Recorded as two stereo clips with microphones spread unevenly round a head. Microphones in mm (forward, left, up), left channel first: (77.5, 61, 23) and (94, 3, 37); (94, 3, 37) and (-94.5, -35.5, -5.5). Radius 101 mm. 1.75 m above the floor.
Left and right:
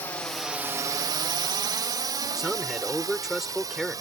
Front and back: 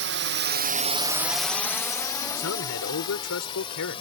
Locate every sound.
0.0 s a drone: 175° left; by 4.0 s 50° right
2.4 s a man speaking: 5° left